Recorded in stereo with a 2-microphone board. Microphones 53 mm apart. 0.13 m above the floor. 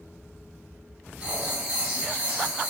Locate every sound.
1.2 s writing: 25° right (ahead or behind), 1.9 m